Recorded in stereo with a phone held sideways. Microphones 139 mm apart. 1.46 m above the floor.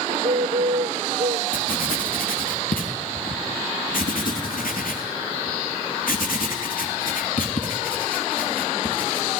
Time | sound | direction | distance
0.1 | a bird | 65° right (ahead or behind) | 0.5 m
1.5 | writing | 80° left | 3 m